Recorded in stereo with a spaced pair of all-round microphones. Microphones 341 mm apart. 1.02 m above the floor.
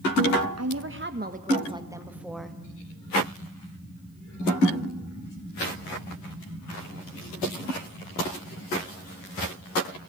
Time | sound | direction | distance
0.6 | a woman speaking | 50° right (ahead or behind) | 1.0 m